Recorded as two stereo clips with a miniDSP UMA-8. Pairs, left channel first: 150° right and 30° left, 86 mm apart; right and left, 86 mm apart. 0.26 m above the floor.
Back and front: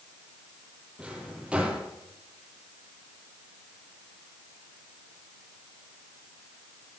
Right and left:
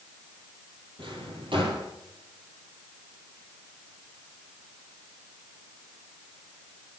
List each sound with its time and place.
1.0 s a drawer: 110° left, 4 m